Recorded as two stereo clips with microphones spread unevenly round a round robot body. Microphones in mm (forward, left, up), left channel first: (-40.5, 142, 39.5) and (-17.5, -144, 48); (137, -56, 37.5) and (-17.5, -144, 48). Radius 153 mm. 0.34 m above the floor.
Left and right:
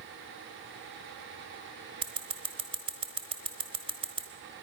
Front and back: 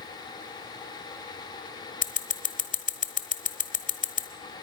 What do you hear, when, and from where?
2.0 s scissors: 10° right, 1.0 m